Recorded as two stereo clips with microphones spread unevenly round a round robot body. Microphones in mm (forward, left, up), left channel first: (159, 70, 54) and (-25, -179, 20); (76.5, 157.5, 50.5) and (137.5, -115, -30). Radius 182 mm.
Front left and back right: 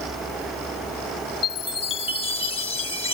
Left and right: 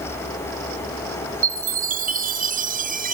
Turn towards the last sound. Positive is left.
turn(degrees=-10)